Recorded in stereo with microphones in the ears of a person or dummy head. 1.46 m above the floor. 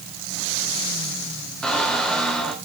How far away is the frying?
I don't hear frying.